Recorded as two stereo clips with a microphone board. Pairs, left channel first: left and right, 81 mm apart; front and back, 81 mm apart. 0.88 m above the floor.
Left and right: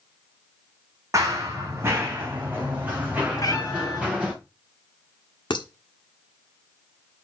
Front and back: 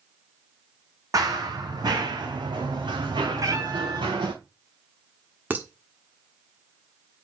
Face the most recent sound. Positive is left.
turn(degrees=110)